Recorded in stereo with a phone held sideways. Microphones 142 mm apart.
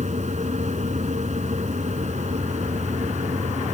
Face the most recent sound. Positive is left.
turn(degrees=-55)  # may be behind; listen again after turning